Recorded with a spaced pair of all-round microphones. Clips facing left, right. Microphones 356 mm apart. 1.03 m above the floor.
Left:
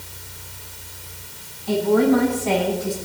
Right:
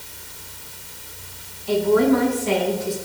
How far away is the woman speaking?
About 9.5 m.